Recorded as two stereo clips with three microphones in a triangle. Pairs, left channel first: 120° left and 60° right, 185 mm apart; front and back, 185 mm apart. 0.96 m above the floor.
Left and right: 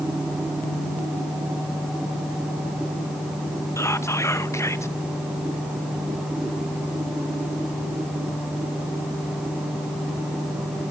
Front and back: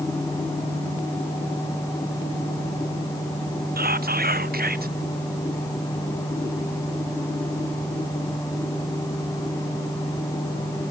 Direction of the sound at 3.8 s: 170° right.